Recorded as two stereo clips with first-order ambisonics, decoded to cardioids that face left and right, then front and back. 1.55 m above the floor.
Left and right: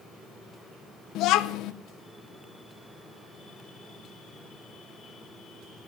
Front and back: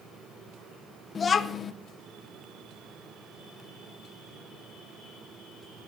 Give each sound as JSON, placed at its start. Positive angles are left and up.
{"t": 1.1, "sound": "a child speaking", "azimuth_deg": 65, "distance_m": 0.5}